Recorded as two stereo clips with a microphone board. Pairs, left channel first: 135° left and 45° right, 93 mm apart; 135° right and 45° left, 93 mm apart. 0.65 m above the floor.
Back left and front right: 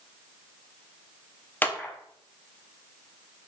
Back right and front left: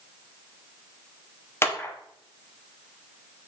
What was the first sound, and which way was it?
A clap, 170° right.